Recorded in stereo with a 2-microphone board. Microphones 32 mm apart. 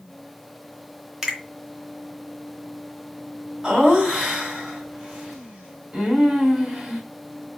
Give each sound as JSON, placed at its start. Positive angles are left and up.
{"t": 1.2, "sound": "a finger snap", "side_deg": -15, "distance_m": 0.8}
{"t": 3.6, "sound": "laughter", "side_deg": -15, "distance_m": 1.5}